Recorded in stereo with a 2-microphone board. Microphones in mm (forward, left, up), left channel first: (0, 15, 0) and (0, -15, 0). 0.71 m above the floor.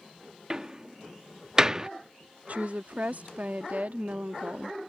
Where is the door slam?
25° right (ahead or behind).